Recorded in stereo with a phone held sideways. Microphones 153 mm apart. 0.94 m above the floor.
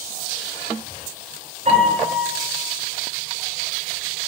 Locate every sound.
1.6 s a piano: 50° right (ahead or behind), 7 m